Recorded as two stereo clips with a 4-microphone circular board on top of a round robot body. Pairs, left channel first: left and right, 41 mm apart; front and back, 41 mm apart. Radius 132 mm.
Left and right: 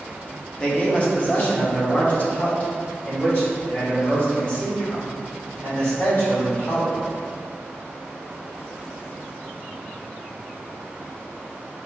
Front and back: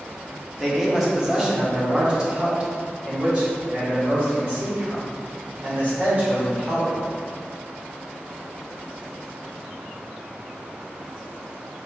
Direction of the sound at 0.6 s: 95° left.